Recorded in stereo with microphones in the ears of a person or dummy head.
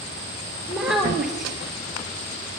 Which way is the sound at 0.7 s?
5° right (ahead or behind).